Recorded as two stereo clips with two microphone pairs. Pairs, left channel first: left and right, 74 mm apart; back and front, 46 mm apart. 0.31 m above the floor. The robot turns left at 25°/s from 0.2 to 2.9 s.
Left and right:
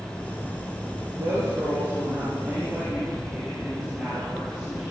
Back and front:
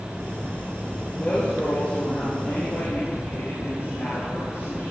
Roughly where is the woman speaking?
Behind right.